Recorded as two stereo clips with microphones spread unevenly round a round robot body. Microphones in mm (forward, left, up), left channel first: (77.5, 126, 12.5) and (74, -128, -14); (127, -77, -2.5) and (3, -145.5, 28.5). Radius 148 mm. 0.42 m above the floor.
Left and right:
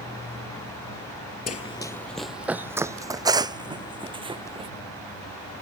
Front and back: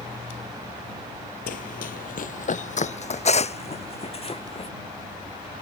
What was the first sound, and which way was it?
Running footsteps, 45° left.